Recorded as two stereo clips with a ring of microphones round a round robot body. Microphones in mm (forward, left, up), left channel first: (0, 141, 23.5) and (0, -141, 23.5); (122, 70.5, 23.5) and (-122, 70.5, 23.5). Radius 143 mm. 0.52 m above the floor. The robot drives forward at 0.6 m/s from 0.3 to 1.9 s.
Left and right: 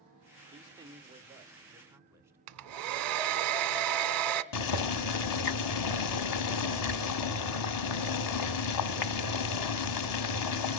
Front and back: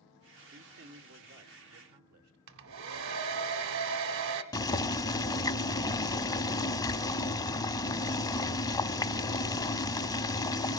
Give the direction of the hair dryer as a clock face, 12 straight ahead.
4 o'clock.